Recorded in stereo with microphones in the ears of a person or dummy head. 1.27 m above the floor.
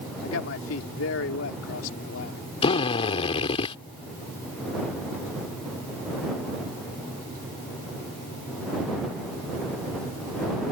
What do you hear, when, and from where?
0.2 s a man speaking: 90° left
2.6 s a drill: 35° left (ahead or behind)